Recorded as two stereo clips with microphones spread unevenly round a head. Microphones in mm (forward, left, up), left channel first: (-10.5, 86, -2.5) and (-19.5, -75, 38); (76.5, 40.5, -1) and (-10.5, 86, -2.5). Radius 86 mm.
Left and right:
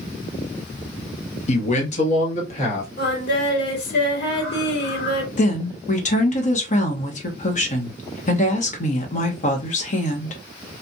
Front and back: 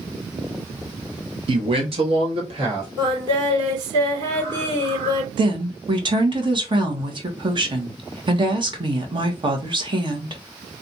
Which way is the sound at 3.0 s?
110° left.